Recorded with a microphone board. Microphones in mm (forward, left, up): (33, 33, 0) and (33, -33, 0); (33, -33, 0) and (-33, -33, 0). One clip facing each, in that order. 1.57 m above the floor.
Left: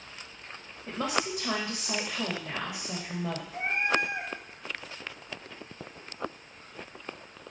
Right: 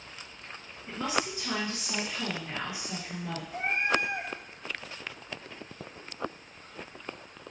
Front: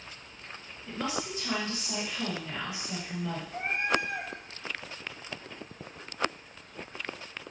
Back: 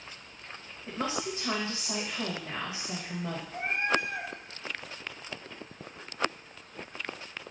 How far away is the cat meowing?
About 1.6 m.